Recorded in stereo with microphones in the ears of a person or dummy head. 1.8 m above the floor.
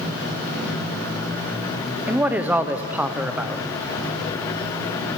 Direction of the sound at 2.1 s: 15° right (ahead or behind).